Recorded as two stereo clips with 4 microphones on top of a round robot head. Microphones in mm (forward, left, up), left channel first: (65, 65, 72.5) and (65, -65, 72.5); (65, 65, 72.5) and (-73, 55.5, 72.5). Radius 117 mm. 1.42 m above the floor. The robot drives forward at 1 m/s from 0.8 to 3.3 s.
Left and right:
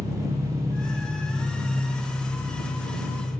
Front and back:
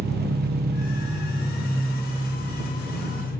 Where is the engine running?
165° right, 0.8 m; by 3.4 s 175° right, 3.5 m.